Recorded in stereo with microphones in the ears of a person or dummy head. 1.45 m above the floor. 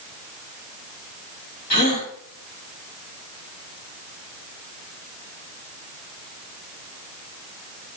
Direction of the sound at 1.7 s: 45° left (ahead or behind).